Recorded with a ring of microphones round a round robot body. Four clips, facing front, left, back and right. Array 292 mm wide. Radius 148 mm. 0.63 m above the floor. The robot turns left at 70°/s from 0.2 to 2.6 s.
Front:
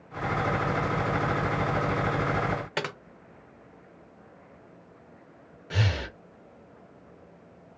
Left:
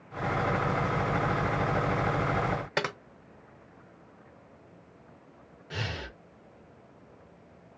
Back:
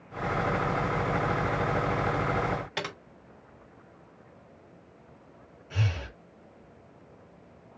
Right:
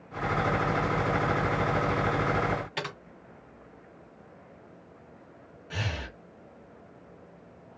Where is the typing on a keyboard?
60° left, 0.7 m.